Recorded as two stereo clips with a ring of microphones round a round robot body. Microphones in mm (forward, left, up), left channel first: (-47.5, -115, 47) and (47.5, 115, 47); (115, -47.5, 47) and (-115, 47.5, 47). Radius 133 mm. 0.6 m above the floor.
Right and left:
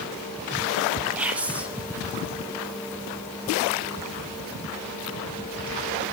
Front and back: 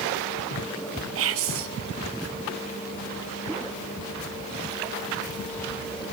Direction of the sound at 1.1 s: 150° left.